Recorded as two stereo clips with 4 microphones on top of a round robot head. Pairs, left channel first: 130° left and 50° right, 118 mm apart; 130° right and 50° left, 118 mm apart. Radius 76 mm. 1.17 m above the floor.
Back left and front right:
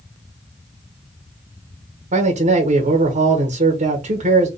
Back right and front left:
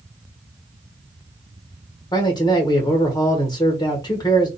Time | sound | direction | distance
2.1 | a man speaking | 70° right | 1.1 m